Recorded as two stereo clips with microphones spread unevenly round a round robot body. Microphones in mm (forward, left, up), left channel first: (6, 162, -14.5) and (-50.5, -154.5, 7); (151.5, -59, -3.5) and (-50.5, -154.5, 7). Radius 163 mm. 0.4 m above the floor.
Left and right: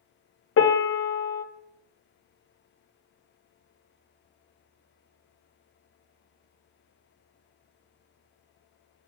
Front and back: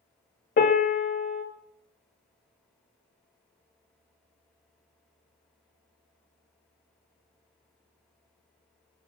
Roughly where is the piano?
Ahead left.